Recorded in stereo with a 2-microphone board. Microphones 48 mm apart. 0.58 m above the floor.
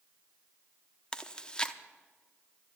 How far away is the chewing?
About 0.6 m.